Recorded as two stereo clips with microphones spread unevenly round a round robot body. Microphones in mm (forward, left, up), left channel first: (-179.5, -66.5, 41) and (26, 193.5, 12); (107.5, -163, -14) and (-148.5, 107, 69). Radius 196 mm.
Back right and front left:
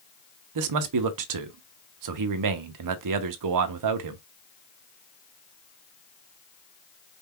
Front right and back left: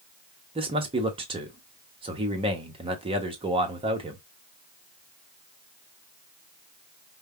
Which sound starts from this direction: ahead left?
A man speaking, at 0.6 s.